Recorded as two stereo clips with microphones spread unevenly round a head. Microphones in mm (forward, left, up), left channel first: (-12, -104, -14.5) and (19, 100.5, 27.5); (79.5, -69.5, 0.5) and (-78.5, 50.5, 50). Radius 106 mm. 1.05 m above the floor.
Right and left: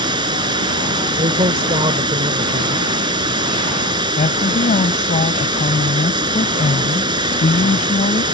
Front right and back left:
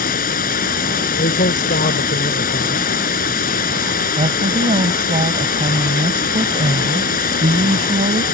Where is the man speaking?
15° left.